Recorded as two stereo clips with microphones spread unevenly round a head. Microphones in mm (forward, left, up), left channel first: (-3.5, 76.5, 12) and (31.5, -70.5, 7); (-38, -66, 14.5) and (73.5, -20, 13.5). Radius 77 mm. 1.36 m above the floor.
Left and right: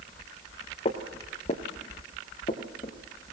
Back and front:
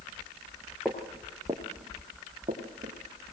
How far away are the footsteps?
About 1.6 m.